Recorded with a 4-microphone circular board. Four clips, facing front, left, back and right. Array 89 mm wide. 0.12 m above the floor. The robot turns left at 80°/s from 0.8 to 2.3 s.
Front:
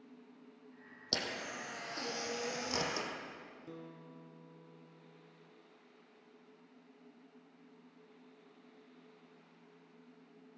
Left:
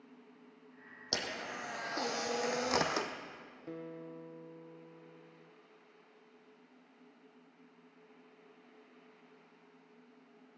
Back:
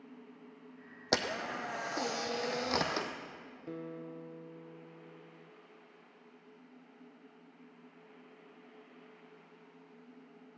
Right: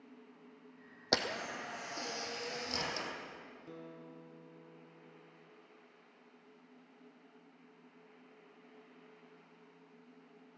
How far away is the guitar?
About 0.7 m.